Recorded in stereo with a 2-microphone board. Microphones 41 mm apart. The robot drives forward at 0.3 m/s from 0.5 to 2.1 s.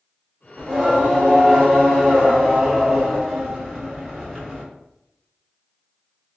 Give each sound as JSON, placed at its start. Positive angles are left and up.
{"t": 0.6, "sound": "singing", "side_deg": 0, "distance_m": 1.1}